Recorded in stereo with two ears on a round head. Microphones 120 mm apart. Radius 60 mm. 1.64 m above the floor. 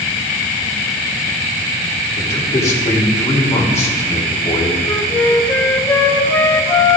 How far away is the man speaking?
About 3.5 m.